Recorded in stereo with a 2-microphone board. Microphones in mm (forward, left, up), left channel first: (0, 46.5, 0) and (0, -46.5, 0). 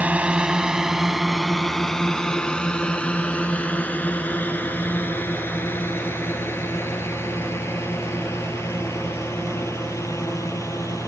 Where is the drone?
15° right (ahead or behind); by 11.1 s 30° left (ahead or behind).